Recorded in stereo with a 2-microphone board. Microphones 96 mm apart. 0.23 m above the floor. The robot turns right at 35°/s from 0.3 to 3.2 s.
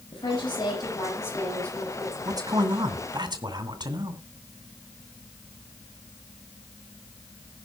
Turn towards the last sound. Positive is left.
turn(degrees=-90)